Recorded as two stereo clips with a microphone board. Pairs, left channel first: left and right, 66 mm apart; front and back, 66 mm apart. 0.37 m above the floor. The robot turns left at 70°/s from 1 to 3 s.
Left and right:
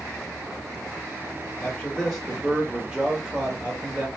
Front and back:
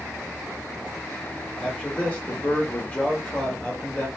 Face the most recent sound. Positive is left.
turn(degrees=-40)